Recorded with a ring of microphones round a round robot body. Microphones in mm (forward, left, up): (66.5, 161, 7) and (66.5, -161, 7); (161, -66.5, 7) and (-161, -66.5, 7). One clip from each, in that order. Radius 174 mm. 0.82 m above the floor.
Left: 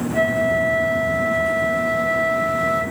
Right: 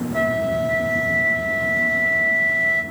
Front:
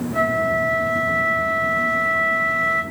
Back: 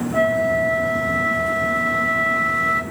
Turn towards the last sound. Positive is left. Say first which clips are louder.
# left 2 dB, back 1 dB
turn(degrees=-150)